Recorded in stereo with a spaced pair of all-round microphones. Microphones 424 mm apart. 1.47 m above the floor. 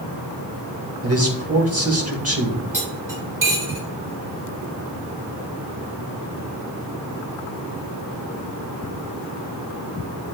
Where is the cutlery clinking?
45° right (ahead or behind), 2.5 m.